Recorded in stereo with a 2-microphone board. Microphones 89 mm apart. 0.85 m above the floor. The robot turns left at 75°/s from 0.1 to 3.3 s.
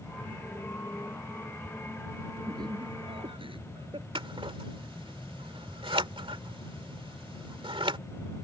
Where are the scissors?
80° right.